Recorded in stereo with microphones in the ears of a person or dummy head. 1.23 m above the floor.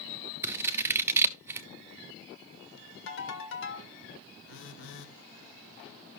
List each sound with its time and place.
0.4 s scissors: 15° right (ahead or behind), 0.9 m
3.1 s a ringtone: 70° left (ahead or behind), 1.8 m
4.5 s a phone buzzing: 65° left (ahead or behind), 1.4 m